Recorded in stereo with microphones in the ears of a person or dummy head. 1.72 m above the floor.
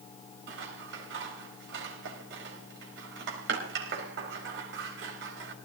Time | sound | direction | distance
0.5 | scissors | 65° right (ahead or behind) | 4.5 m